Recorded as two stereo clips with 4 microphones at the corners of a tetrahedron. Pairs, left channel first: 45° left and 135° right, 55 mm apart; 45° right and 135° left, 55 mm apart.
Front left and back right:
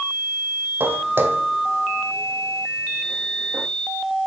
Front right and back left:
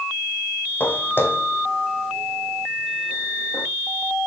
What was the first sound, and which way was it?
Footsteps, 95° right.